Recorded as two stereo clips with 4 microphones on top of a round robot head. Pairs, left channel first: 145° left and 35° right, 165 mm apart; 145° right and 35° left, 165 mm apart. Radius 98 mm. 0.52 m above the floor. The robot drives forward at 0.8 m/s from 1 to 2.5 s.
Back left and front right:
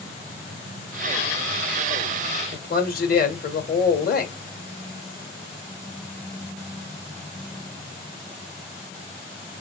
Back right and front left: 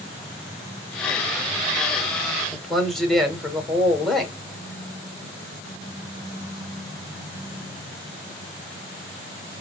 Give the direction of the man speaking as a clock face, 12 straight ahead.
8 o'clock.